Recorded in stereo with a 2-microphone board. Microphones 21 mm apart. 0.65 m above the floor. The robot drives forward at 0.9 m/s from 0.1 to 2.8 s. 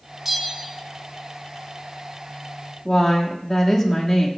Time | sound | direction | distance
0.2 | a bell | 10° right (ahead or behind) | 0.9 m
2.9 | a woman speaking | 30° left (ahead or behind) | 1.3 m